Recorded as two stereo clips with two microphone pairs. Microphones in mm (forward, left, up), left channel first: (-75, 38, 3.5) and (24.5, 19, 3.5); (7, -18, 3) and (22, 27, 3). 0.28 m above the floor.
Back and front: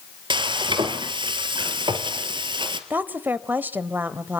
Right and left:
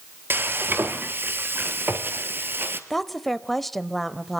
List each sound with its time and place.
0.3 s frying: 30° left, 1.8 m
2.9 s a woman speaking: 30° right, 0.9 m